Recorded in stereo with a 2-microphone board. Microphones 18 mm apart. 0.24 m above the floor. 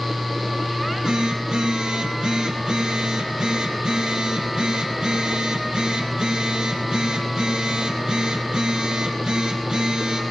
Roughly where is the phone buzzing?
Right.